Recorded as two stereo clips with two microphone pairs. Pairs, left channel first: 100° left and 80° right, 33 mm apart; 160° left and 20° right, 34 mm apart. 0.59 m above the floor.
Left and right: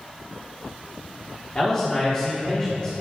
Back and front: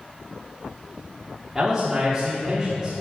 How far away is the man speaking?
About 1.4 m.